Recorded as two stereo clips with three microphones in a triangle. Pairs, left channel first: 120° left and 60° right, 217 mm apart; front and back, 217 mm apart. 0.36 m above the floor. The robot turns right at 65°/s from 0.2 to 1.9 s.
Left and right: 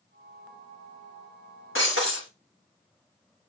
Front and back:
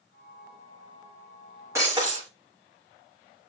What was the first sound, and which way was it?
Breaking glass, 105° left.